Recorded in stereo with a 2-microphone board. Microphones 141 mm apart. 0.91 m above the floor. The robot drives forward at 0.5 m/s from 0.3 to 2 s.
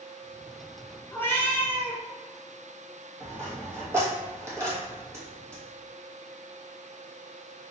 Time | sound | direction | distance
1.1 | a cat meowing | 15° left (ahead or behind) | 0.9 m
3.2 | a dropped coin | 20° right (ahead or behind) | 1.6 m